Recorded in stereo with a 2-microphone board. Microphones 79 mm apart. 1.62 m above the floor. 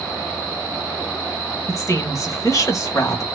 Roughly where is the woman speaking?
Left.